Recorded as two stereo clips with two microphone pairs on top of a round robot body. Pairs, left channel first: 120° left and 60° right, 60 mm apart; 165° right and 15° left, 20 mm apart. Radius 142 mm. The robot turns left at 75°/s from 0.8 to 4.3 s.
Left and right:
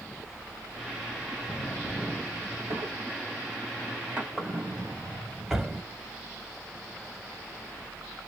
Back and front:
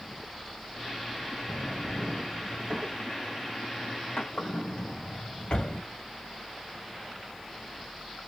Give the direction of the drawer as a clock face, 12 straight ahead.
10 o'clock.